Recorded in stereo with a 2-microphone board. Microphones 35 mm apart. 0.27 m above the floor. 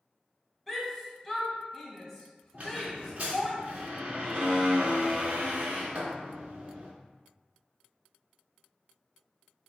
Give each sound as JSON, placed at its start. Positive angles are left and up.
{"t": 0.7, "sound": "a shout", "side_deg": 5, "distance_m": 1.3}
{"t": 2.5, "sound": "a squeak", "side_deg": -50, "distance_m": 1.7}